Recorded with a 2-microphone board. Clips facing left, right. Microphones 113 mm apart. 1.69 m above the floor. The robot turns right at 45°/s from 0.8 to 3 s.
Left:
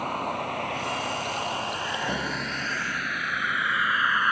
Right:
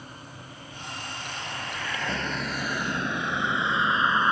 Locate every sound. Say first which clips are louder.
0.0 s a vehicle: left 16 dB; 70° left (ahead or behind); by 4.3 s 25° right (ahead or behind)